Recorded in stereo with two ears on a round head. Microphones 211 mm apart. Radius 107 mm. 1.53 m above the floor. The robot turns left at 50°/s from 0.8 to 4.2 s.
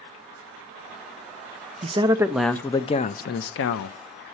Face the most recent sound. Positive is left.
turn(degrees=90)